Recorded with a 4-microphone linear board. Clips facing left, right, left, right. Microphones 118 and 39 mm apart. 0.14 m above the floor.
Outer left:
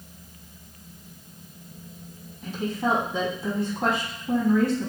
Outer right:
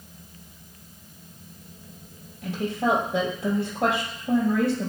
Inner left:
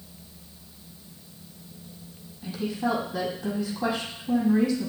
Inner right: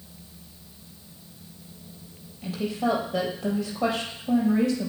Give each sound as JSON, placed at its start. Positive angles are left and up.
{"t": 2.4, "sound": "a woman speaking", "side_deg": -70, "distance_m": 3.5}